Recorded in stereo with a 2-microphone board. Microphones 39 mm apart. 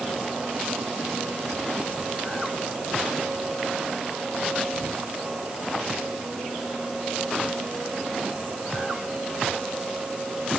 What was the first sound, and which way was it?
Only background noise.